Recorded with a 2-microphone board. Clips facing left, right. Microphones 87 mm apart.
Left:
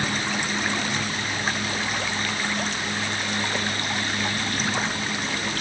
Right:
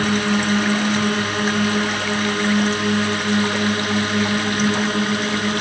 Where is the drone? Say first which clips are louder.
Right 8 dB; 75° right (ahead or behind).